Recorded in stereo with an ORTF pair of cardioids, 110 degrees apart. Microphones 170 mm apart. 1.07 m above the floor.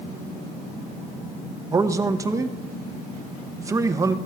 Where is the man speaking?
20° right, 0.7 m.